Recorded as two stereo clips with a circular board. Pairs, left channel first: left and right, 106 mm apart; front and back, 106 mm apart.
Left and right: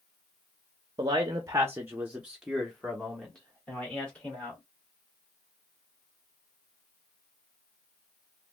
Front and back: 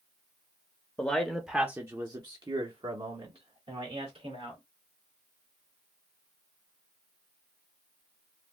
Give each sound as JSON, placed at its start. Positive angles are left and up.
{"t": 1.0, "sound": "a man speaking", "azimuth_deg": -65, "distance_m": 0.7}